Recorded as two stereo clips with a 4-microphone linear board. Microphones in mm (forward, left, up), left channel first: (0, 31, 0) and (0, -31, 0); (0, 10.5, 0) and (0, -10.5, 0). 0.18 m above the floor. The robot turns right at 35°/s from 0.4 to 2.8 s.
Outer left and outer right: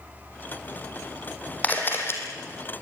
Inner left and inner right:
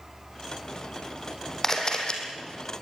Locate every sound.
1.6 s a camera shutter: 25° left (ahead or behind), 3 m; by 2.2 s 45° left (ahead or behind), 3 m